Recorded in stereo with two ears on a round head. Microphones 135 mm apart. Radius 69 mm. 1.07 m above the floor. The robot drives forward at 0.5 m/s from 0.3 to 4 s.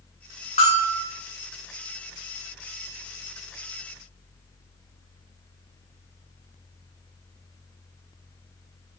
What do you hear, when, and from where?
0.6 s a bell: 40° left (ahead or behind), 3 m; by 1.0 s 45° left (ahead or behind), 2.5 m